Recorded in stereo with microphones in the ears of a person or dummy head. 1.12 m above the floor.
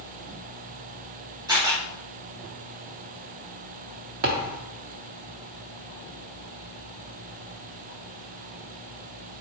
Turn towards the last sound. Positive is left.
turn(degrees=-45)  # may be behind; listen again after turning